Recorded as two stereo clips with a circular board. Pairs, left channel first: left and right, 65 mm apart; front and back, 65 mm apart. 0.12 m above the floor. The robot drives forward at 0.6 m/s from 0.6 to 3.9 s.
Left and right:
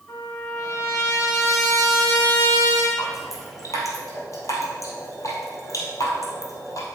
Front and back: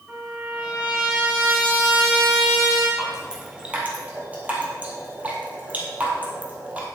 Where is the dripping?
95° left, 1.8 m; by 6.8 s 115° left, 2.0 m.